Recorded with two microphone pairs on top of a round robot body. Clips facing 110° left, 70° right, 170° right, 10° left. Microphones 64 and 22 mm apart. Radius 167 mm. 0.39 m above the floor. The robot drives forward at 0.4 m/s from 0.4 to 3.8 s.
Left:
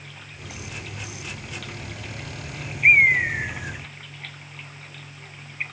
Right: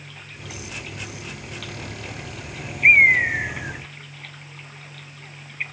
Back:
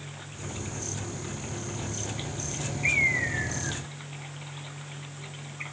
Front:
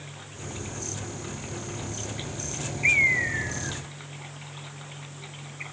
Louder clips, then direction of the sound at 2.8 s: Right 2 dB, front 3 dB; 75° right.